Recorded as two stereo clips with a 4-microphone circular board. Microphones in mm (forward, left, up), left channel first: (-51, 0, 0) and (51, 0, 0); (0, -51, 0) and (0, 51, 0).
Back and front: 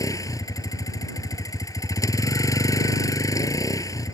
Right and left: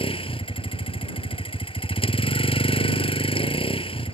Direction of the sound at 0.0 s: 120° right.